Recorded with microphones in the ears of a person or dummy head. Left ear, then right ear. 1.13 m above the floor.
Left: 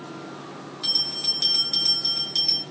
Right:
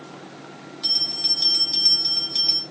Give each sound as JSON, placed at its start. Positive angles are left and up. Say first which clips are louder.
{"t": 0.8, "sound": "a bell", "louder": "right 2 dB", "side_deg": -5, "distance_m": 0.5}